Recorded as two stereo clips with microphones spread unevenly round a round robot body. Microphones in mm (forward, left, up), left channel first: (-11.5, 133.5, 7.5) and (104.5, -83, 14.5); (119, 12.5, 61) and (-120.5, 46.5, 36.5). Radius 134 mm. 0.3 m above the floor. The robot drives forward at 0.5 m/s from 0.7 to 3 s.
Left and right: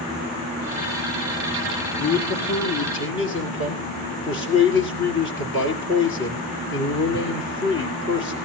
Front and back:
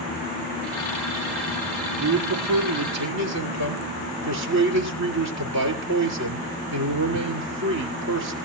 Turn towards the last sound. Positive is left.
turn(degrees=165)